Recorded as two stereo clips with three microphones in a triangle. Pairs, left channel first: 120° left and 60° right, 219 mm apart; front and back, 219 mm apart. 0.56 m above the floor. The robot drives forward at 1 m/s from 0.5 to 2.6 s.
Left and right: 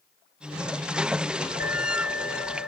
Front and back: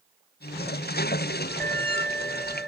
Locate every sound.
1.6 s an alarm: 80° left; by 2.7 s 90° left